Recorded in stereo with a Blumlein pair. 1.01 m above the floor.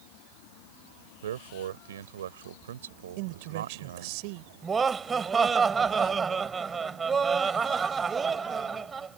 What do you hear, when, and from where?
1.2 s a man speaking: 60° right
3.2 s a man speaking: 45° right
4.6 s laughter: 15° right